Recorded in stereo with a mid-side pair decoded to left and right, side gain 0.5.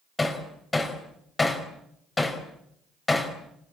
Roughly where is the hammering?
Ahead.